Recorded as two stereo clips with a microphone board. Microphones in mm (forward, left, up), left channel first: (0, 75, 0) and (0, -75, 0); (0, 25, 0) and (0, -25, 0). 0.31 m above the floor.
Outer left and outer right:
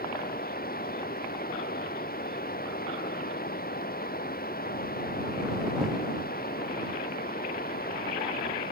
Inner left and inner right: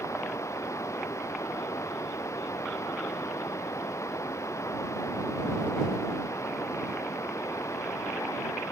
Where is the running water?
85° left.